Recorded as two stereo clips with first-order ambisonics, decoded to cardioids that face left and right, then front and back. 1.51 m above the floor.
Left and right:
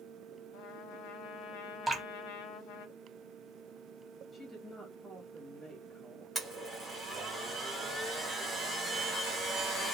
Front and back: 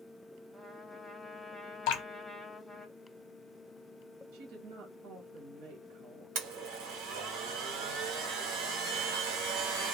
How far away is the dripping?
About 0.8 m.